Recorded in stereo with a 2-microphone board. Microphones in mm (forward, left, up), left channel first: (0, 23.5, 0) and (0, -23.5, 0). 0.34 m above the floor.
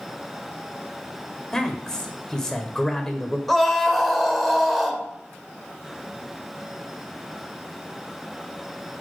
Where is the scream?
Centre (ahead or behind), 1.0 m.